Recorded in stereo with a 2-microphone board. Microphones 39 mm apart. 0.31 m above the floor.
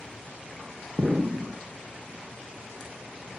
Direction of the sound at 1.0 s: 20° right (ahead or behind).